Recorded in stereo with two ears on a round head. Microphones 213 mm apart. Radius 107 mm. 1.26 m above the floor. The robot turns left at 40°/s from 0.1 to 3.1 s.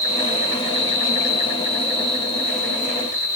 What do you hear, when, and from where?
0.0 s an insect: 155° left, 3.5 m; by 3.4 s 35° left, 3.5 m